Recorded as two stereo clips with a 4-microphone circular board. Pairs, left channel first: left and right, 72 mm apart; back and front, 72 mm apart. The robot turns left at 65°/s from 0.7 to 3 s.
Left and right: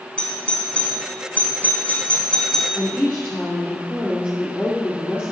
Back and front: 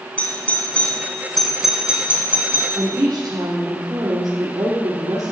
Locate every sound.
0.2 s a doorbell: 140° left, 1.9 m; by 2.8 s 5° left, 1.9 m
2.8 s a woman speaking: 30° left, 2.5 m; by 5.3 s 15° left, 2.5 m